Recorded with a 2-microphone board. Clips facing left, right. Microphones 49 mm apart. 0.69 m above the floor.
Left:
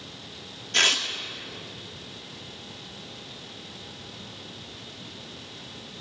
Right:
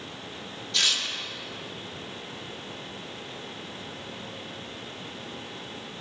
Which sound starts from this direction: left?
Tearing paper, at 0.7 s.